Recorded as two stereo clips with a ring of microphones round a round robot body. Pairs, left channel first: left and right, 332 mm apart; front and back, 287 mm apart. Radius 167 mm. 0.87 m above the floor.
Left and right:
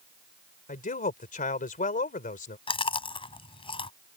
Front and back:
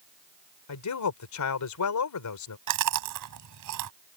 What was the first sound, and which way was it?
A man speaking, 25° left.